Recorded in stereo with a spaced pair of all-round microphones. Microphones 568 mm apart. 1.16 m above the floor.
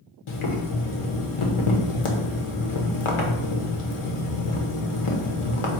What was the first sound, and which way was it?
Boiling, 70° left (ahead or behind).